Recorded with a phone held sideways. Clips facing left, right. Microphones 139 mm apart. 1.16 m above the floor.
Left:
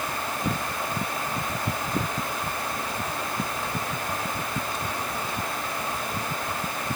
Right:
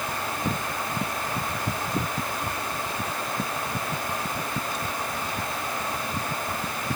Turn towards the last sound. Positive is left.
No sound to turn to.